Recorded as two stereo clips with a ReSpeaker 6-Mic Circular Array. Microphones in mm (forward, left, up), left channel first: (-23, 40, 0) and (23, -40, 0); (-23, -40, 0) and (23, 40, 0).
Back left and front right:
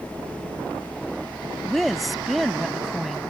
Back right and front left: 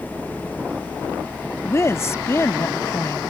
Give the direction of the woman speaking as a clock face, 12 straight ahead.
5 o'clock.